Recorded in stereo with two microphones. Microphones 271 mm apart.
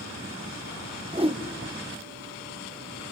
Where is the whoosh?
20° right (ahead or behind), 0.7 m.